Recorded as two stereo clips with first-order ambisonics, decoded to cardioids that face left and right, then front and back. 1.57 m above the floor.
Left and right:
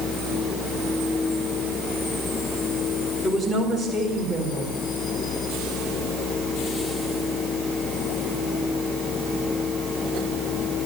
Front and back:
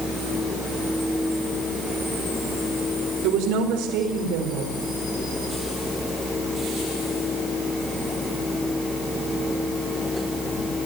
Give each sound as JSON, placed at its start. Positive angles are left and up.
{"t": 3.2, "sound": "a woman speaking", "azimuth_deg": 165, "distance_m": 4.5}